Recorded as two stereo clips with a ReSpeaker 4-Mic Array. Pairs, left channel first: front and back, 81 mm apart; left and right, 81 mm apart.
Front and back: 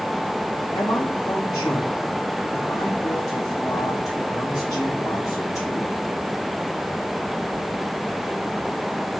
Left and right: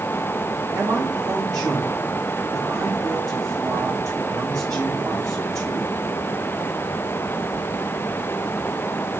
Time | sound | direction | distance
0.7 | a man speaking | 45° right | 6 m